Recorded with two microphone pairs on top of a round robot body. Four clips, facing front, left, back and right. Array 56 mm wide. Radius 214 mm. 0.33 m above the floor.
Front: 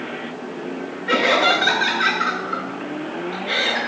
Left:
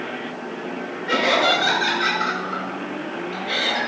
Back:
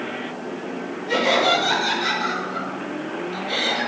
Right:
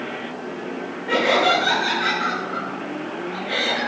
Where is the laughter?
25° left, 7.5 m.